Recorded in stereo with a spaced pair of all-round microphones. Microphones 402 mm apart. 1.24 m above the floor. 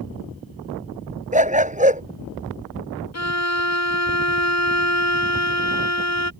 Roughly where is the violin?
Left.